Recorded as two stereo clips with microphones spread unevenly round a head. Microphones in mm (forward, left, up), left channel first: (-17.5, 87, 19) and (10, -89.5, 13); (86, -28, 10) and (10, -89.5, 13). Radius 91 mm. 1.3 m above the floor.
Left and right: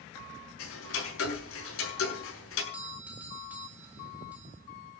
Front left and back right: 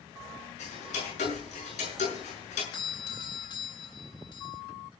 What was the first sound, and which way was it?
Ticking, 80° left.